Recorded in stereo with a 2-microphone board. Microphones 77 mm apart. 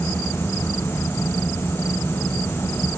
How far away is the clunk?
No clunk in this recording.